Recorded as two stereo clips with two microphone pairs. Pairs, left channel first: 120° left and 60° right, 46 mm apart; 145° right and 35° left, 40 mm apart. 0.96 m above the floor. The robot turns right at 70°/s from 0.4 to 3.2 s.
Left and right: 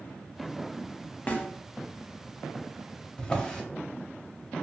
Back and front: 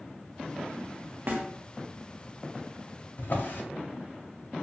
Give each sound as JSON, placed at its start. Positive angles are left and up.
{"t": 1.3, "sound": "a snare drum", "azimuth_deg": 60, "distance_m": 0.6}
{"t": 3.2, "sound": "a drawer", "azimuth_deg": -165, "distance_m": 0.6}